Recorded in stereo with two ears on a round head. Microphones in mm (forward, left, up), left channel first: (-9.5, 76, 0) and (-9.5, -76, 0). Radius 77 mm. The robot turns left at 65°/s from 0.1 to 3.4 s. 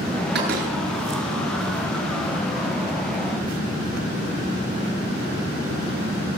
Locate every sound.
0.3 s a door slam: 65° right (ahead or behind), 8.5 m; by 0.7 s 45° right (ahead or behind), 8.5 m